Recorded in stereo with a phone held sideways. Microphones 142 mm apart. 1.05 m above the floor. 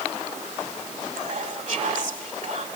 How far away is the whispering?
About 1.8 m.